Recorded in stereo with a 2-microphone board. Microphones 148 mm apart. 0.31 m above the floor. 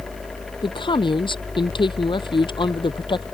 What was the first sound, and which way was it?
A man speaking, 35° left (ahead or behind).